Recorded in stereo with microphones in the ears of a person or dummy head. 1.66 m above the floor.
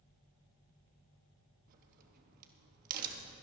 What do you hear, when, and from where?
1.7 s a crack: 50° right (ahead or behind), 1.2 m